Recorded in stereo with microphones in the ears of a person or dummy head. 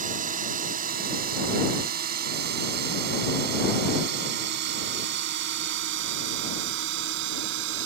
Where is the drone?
40° right (ahead or behind); by 7.9 s 65° right (ahead or behind).